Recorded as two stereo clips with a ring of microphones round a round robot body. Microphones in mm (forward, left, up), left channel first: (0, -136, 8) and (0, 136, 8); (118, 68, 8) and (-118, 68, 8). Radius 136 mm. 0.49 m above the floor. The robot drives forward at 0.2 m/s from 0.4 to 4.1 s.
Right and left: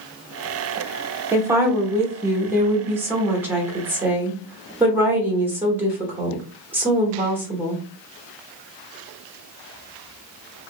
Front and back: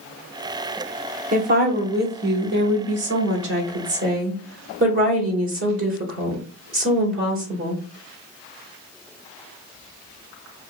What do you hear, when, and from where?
1.3 s a woman speaking: 165° left, 1.0 m; by 7.8 s 170° left, 1.4 m